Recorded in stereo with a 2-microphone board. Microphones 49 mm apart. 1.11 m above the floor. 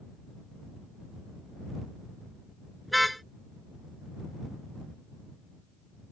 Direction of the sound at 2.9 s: Centre (ahead or behind).